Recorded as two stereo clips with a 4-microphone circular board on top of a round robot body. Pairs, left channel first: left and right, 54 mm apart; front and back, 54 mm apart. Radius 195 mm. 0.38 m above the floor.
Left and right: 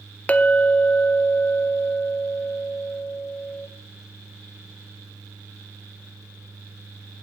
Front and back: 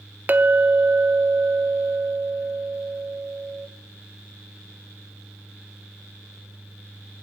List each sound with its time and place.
0.3 s a clink: 140° left, 0.9 m